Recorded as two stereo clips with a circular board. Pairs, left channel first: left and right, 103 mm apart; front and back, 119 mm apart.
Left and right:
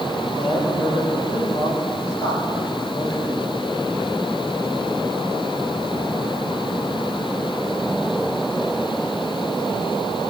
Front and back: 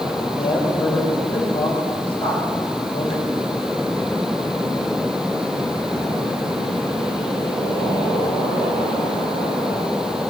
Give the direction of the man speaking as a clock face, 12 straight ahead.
11 o'clock.